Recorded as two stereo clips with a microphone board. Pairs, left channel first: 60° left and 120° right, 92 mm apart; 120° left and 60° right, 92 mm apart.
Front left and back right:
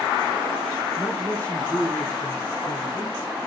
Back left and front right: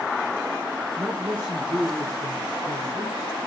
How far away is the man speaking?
About 3 m.